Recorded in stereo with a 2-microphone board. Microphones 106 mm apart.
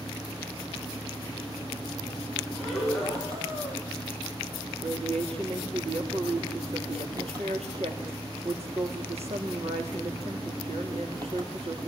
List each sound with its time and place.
0.0 s an engine running: 35° right (ahead or behind), 3 m
2.5 s breathing: centre (ahead or behind), 9 m
4.8 s a woman speaking: 75° right (ahead or behind), 7 m